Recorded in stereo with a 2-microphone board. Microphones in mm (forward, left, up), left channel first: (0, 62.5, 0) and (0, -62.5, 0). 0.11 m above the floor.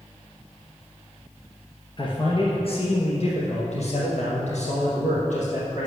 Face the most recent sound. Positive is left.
turn(degrees=70)  # may be behind; listen again after turning